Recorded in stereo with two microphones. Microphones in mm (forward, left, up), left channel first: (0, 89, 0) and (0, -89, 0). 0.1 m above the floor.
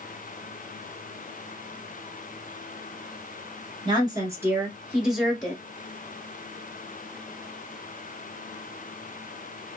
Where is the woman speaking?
25° right (ahead or behind), 1.3 m; by 5.6 s 5° left (ahead or behind), 1.3 m.